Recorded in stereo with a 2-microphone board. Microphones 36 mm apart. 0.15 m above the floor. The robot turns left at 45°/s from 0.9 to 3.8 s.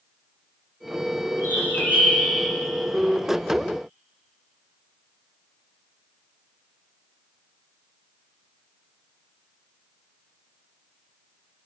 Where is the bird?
65° left, 3 m; by 2.3 s 25° left, 3 m.